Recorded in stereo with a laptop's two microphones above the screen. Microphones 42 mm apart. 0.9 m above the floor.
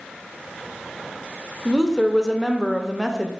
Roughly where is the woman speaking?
Centre.